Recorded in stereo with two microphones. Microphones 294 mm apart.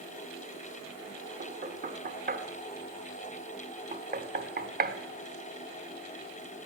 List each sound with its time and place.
1.4 s knocking: 30° right (ahead or behind), 0.9 m